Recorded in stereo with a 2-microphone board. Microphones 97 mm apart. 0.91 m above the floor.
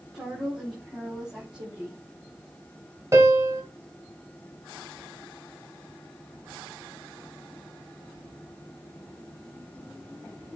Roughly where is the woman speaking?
Centre.